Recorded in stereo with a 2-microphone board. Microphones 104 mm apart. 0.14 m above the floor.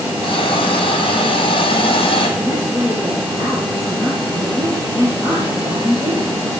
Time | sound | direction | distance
0.2 | a hiss | 55° left (ahead or behind) | 3.5 m
2.4 | a woman speaking | centre (ahead or behind) | 5 m